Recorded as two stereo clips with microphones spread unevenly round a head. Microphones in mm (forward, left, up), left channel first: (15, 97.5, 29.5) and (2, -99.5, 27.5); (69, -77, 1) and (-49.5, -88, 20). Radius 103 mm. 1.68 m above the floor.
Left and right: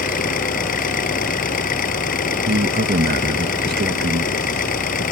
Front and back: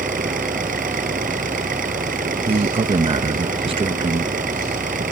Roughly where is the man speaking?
Behind right.